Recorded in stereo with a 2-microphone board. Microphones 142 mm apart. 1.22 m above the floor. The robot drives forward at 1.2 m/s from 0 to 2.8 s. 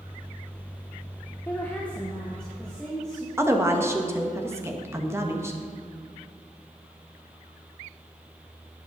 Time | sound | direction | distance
1.5 | a woman speaking | 15° left (ahead or behind) | 0.9 m
3.4 | a woman speaking | 20° right (ahead or behind) | 1.3 m